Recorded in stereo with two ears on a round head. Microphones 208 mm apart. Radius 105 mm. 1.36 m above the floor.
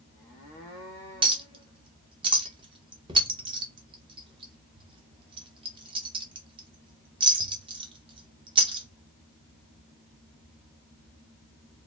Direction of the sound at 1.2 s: 20° right (ahead or behind).